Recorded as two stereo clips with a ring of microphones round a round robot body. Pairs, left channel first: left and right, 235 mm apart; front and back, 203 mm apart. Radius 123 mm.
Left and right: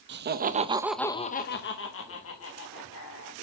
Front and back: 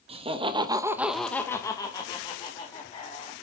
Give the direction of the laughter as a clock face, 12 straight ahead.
4 o'clock.